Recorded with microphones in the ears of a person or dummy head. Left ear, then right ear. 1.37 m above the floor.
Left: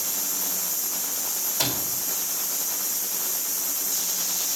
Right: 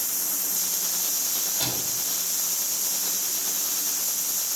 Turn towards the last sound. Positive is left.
turn(degrees=50)  # may be behind; listen again after turning